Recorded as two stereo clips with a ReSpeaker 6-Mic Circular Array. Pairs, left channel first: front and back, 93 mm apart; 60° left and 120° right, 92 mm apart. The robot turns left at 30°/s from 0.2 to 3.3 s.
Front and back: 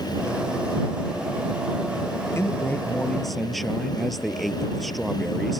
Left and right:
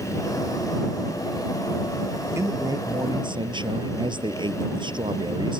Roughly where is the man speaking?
Ahead right.